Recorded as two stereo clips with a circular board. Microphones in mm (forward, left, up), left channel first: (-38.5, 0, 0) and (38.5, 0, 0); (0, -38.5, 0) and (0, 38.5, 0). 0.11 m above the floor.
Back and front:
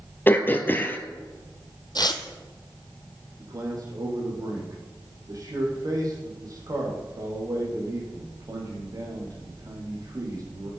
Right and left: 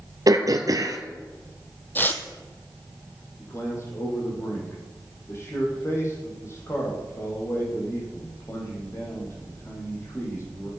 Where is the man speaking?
40° right, 4.5 m.